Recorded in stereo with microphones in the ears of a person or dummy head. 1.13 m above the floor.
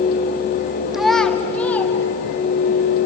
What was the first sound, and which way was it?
A child speaking, centre (ahead or behind).